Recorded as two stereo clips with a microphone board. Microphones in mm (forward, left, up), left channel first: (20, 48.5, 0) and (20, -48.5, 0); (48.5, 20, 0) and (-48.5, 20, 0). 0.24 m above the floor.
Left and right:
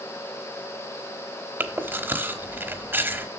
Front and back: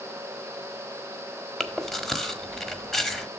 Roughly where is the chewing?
Right.